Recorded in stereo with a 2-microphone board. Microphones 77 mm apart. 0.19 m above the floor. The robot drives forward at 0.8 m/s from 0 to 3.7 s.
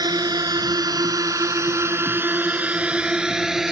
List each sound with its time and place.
0.0 s a drone: 60° right (ahead or behind); by 3.7 s 5° right (ahead or behind)